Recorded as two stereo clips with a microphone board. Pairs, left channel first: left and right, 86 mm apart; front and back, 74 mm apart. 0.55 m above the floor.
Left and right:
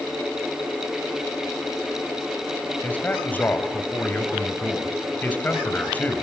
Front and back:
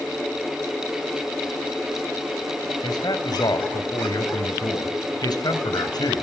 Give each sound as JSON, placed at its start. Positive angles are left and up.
{"t": 2.8, "sound": "a man speaking", "azimuth_deg": 20, "distance_m": 3.5}